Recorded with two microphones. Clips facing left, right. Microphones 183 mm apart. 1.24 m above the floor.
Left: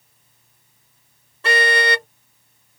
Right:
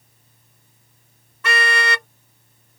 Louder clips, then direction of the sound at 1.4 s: Left 4 dB; 30° left (ahead or behind).